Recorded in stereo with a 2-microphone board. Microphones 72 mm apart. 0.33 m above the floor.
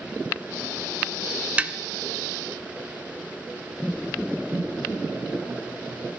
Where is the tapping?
20° right (ahead or behind), 0.5 m.